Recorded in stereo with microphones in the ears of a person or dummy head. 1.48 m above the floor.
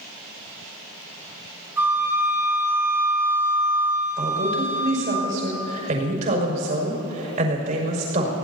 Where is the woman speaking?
40° right (ahead or behind), 5.5 m.